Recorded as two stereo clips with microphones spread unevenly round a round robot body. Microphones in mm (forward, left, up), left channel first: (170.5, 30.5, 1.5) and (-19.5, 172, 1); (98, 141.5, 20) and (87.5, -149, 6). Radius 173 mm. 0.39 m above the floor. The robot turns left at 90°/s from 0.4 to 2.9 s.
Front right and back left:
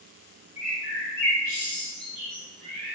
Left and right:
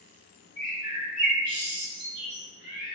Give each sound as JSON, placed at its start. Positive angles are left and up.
{"t": 0.6, "sound": "a bird", "azimuth_deg": 10, "distance_m": 1.4}